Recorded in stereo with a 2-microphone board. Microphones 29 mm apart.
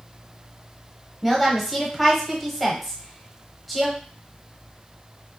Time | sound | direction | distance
1.2 | a woman speaking | centre (ahead or behind) | 1.0 m